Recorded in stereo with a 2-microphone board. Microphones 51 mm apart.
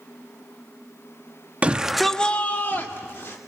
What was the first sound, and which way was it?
A shout, 25° right (ahead or behind).